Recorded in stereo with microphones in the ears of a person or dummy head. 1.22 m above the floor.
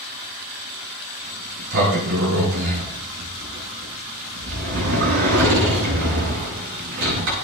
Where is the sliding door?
65° right (ahead or behind), 7.5 m.